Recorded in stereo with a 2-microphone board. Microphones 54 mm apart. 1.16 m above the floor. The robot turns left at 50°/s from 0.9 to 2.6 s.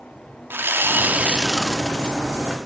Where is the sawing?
140° right, 1.3 m; by 2.2 s 160° left, 1.3 m.